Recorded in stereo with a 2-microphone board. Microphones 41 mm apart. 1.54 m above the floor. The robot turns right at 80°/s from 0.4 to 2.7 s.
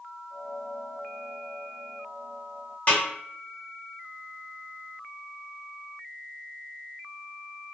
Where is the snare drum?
35° left (ahead or behind), 1.3 m.